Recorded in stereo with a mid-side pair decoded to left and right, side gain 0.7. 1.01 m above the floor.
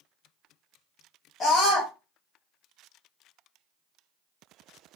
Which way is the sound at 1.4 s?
40° left.